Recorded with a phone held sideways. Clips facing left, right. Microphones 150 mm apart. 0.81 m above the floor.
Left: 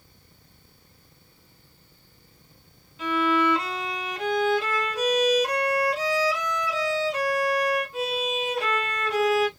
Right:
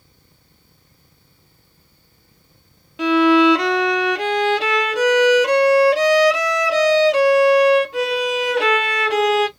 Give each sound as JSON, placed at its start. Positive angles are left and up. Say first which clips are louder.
{"t": 3.0, "sound": "a violin", "louder": "right 10 dB", "side_deg": -80, "distance_m": 0.5}